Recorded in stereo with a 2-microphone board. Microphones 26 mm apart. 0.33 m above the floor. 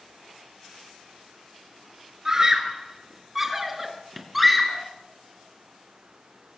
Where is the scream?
20° right (ahead or behind), 4 m; by 4.9 s 5° left (ahead or behind), 3.5 m.